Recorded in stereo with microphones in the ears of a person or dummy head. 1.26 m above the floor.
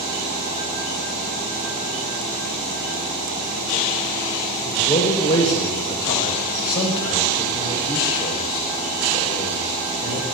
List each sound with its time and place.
4.7 s a man speaking: 25° left (ahead or behind), 4.5 m